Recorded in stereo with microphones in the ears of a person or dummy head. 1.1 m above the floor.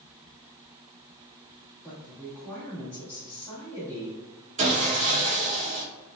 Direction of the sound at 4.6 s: 35° right (ahead or behind).